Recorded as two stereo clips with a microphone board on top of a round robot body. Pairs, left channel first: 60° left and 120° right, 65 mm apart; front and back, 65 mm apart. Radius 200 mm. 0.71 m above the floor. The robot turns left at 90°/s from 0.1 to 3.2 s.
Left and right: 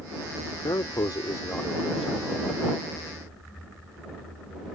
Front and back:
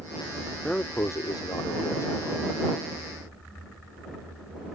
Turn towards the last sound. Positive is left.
turn(degrees=-150)